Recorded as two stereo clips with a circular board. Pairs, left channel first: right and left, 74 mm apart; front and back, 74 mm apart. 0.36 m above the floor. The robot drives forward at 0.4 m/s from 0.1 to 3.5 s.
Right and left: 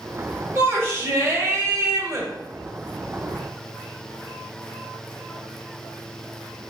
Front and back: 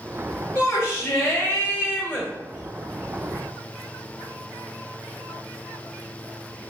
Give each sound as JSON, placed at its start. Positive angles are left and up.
{"t": 0.6, "sound": "a shout", "azimuth_deg": 40, "distance_m": 1.4}